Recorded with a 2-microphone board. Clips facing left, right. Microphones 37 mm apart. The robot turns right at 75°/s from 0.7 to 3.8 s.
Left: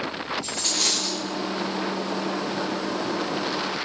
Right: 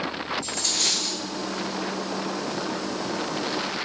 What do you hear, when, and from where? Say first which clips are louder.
0.4 s a dropped coin: left 1 dB; 165° left, 5 m; by 1.2 s 160° right, 5 m